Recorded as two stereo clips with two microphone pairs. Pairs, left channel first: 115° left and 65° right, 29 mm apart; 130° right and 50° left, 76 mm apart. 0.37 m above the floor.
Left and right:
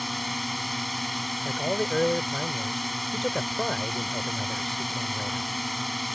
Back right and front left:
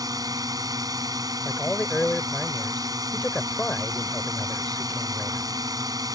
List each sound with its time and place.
0.0 s a drone: 25° left
1.4 s a man speaking: 170° left